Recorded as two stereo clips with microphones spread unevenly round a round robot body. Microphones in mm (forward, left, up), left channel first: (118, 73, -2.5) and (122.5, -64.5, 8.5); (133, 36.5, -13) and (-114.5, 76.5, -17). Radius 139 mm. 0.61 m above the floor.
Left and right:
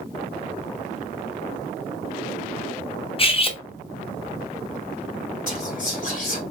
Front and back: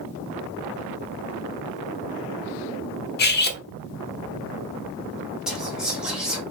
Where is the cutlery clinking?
40° left, 0.7 m.